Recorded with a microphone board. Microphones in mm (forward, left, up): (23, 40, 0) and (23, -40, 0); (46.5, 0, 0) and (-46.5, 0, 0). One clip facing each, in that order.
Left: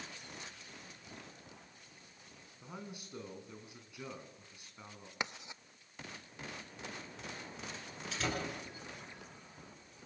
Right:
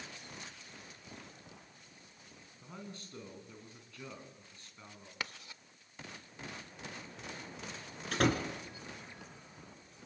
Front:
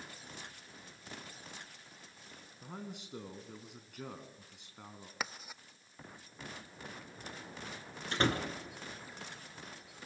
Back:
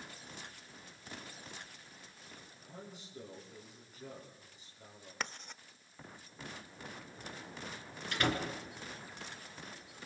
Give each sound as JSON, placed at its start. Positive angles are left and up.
{"t": 2.6, "sound": "a man speaking", "azimuth_deg": 15, "distance_m": 5.0}
{"t": 5.2, "sound": "writing", "azimuth_deg": 70, "distance_m": 0.6}
{"t": 8.1, "sound": "a door slam", "azimuth_deg": -60, "distance_m": 3.5}